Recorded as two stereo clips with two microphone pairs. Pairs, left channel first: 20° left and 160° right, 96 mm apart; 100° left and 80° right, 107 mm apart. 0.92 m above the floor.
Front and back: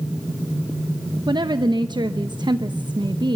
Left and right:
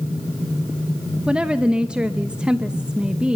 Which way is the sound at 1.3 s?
155° right.